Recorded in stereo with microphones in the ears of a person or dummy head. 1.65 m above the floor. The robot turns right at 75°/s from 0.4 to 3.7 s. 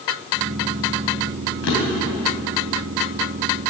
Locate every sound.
1.6 s a drawer: 70° left (ahead or behind), 4 m; by 2.2 s 40° left (ahead or behind), 4 m